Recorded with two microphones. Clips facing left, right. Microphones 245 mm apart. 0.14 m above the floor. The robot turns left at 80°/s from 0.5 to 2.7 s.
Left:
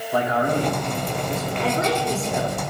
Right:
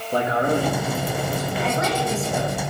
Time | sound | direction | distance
0.1 | a man speaking | 140° right | 5 m
1.6 | a woman speaking | 90° left | 5.5 m